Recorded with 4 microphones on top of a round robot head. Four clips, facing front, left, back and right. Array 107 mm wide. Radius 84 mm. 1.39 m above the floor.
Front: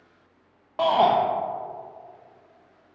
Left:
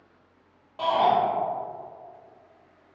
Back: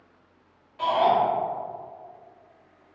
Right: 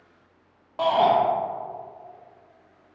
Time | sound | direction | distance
0.8 | a shout | 20° right | 0.8 m